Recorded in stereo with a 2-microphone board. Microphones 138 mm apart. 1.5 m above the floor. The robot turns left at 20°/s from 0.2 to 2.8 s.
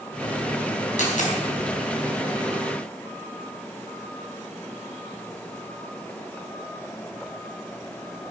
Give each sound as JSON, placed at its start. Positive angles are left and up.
{"t": 1.0, "sound": "a dropped coin", "side_deg": 70, "distance_m": 4.0}